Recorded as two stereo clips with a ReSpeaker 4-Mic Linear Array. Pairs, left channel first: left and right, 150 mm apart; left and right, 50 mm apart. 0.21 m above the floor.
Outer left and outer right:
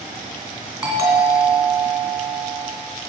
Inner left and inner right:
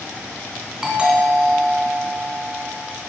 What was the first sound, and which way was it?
A doorbell, 20° right (ahead or behind).